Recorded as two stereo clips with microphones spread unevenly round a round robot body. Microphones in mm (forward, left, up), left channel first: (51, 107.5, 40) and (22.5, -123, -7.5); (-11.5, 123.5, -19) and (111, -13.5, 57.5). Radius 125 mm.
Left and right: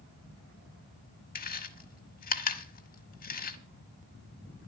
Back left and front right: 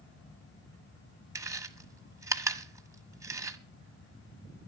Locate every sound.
1.4 s chewing: 30° left, 1.4 m